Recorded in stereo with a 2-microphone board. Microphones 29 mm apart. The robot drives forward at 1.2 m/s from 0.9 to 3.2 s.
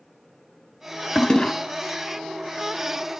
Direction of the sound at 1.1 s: 25° left (ahead or behind).